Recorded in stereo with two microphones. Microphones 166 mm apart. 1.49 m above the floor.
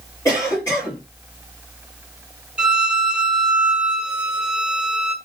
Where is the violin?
5° right (ahead or behind), 0.6 m.